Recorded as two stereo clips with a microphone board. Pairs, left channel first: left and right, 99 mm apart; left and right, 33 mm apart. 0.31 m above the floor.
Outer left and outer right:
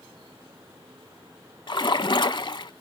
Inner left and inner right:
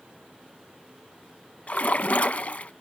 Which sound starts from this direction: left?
A splash, at 1.7 s.